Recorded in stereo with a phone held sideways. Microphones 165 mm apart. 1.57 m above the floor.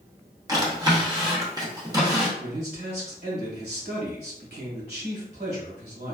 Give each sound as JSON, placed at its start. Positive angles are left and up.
{"t": 0.5, "sound": "a drawer", "side_deg": -25, "distance_m": 0.8}
{"t": 2.4, "sound": "a man speaking", "side_deg": -85, "distance_m": 1.5}